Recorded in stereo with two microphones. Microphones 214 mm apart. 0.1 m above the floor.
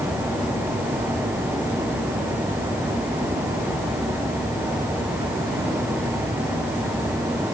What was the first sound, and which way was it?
Only background noise.